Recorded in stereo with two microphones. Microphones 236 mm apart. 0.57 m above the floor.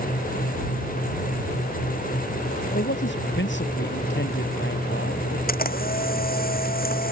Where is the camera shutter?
40° left (ahead or behind).